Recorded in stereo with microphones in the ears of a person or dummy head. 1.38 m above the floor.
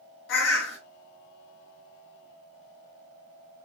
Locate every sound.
0.3 s a bird: 65° left (ahead or behind), 2.5 m